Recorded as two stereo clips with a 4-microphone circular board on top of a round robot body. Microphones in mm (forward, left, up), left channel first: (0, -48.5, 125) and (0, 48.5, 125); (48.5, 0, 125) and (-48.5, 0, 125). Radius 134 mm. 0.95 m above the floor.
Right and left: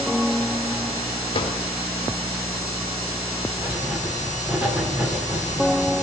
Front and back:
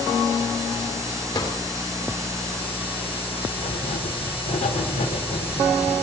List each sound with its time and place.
1.3 s a drawer: 50° right, 1.8 m
3.6 s writing: 15° left, 2 m